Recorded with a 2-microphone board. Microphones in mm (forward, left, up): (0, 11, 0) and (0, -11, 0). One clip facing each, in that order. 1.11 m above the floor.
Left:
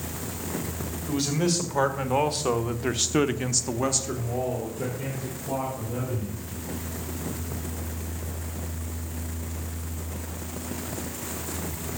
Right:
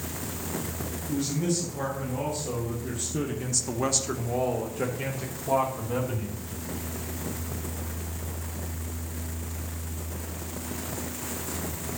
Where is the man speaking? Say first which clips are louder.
Left 3 dB; 75° left (ahead or behind), 2.5 m; by 6.3 s 45° right (ahead or behind), 3 m.